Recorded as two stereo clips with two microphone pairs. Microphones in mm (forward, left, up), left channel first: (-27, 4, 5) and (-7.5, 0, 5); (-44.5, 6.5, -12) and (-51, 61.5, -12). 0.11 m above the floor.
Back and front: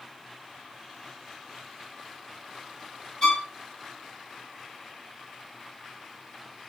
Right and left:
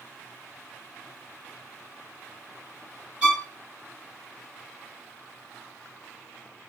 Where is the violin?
155° left, 1.9 m.